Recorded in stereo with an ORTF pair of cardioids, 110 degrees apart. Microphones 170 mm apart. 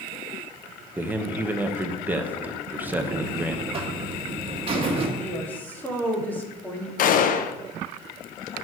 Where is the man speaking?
10° right, 1.1 m.